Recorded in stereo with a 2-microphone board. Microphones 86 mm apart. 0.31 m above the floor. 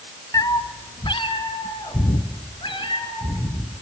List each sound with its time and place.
0.3 s a cat meowing: 45° left (ahead or behind), 0.5 m; by 3.8 s 80° left, 3.5 m